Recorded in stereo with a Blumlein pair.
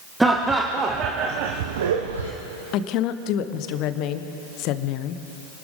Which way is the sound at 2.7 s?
40° left.